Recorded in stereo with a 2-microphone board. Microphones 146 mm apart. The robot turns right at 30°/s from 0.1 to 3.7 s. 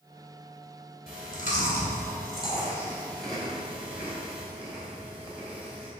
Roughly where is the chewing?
Left.